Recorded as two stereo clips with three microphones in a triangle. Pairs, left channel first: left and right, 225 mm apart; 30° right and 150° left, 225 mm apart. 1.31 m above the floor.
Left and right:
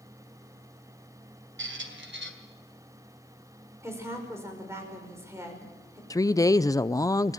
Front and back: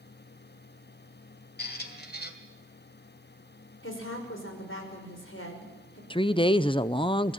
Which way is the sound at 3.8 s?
10° right.